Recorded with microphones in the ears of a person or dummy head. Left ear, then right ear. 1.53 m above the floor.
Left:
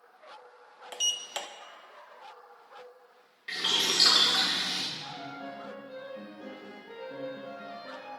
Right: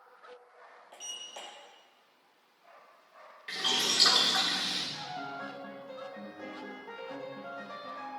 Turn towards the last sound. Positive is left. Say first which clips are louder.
# right 1 dB
turn(degrees=-50)  # may be behind; listen again after turning